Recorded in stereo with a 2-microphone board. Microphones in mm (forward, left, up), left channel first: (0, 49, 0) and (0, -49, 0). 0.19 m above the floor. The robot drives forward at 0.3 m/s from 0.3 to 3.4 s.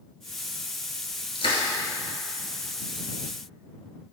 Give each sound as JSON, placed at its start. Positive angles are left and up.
{"t": 1.4, "sound": "crushing", "side_deg": 70, "distance_m": 1.1}